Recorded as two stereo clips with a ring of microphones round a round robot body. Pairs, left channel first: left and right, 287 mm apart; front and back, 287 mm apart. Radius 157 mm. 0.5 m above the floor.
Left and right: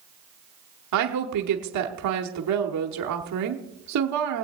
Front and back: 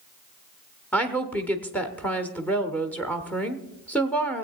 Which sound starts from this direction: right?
A woman speaking, at 0.9 s.